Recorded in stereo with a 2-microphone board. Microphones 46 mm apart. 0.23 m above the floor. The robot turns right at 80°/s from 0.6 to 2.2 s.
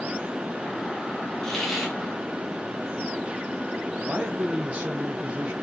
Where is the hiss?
160° left, 1.3 m; by 1.9 s 160° right, 1.3 m.